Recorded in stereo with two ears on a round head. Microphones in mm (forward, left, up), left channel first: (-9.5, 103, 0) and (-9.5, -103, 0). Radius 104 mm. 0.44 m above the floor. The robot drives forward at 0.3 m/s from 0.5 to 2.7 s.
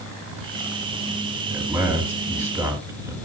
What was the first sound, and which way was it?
A man speaking, 10° right (ahead or behind).